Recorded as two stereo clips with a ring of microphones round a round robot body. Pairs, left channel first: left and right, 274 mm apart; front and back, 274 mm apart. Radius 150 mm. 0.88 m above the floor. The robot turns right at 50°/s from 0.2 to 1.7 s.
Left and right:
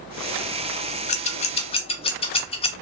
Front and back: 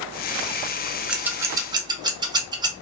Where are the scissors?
95° left, 0.5 m; by 2.7 s 125° left, 0.5 m.